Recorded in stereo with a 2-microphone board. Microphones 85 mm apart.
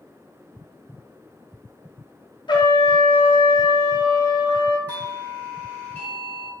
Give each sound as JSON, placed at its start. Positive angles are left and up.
{"t": 2.5, "sound": "a trumpet", "side_deg": 65, "distance_m": 0.6}
{"t": 4.9, "sound": "a doorbell", "side_deg": 20, "distance_m": 0.9}